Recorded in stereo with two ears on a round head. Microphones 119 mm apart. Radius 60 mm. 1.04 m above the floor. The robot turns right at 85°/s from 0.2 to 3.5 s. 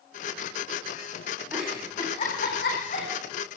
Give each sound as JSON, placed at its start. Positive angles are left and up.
{"t": 1.5, "sound": "a giggle", "side_deg": -15, "distance_m": 10.0}